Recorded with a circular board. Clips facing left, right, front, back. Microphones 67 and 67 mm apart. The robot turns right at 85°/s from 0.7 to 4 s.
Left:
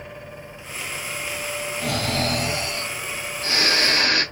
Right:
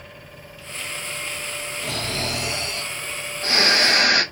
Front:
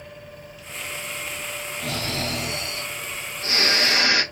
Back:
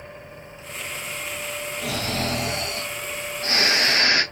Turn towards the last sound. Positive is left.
turn(degrees=-80)